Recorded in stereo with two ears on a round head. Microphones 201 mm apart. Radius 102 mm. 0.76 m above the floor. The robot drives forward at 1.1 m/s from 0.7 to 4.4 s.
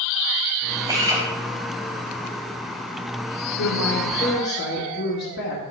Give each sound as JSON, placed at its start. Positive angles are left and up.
{"t": 0.9, "sound": "a drill", "side_deg": -15, "distance_m": 4.0}
{"t": 3.6, "sound": "a woman speaking", "side_deg": 65, "distance_m": 2.0}